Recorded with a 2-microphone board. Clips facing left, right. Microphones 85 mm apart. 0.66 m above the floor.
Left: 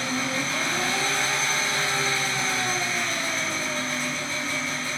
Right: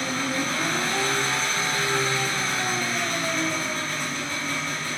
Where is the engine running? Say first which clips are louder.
Right 1 dB; 50° right (ahead or behind), 1.5 m.